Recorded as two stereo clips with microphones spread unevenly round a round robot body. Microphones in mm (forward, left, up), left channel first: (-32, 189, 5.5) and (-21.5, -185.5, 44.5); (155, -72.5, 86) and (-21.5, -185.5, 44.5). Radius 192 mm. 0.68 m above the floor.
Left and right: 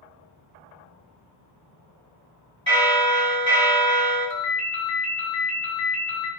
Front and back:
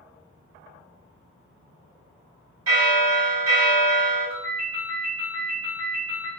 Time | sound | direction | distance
2.7 | a bell | 160° right | 1.7 m
4.3 | a ringtone | 55° left | 0.7 m